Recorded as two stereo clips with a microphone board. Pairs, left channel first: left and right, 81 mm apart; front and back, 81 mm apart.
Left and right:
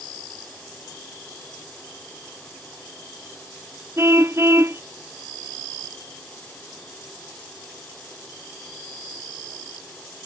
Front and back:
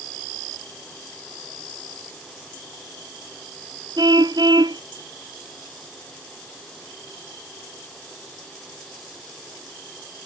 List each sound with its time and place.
4.0 s a car horn: 150° right